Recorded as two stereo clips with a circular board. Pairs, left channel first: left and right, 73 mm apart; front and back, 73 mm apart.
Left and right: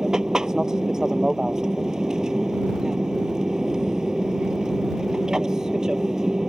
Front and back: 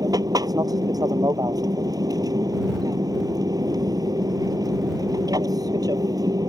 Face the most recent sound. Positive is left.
turn(degrees=-170)